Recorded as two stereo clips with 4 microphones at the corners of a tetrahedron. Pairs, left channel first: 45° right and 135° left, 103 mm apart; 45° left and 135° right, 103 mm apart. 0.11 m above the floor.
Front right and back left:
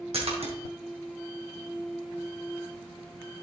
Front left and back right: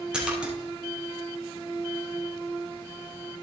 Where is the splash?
145° left, 2.5 m.